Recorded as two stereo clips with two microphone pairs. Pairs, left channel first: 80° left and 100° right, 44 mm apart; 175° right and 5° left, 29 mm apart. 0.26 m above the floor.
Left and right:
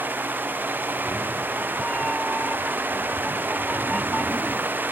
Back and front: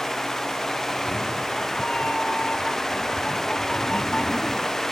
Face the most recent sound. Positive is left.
turn(degrees=145)